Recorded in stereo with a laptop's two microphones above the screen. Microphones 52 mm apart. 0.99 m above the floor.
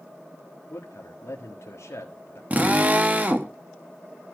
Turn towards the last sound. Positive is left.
turn(degrees=-35)  # may be behind; listen again after turning